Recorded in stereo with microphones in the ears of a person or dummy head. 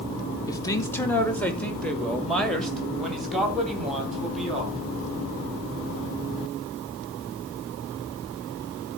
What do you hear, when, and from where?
0.5 s a man speaking: 25° left (ahead or behind), 1.5 m; by 4.8 s 5° left (ahead or behind), 4.5 m